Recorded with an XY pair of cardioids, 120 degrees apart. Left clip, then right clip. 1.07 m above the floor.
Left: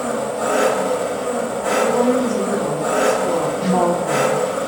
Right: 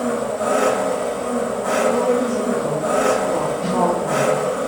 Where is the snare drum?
45° left, 1.9 m.